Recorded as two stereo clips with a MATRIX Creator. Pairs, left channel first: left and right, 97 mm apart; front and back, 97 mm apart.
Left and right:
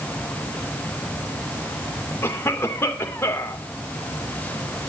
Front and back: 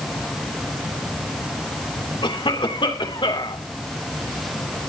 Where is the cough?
25° left, 3 m.